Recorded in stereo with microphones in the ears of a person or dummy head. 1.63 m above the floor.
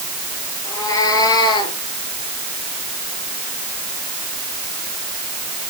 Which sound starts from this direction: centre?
A cat meowing, at 0.7 s.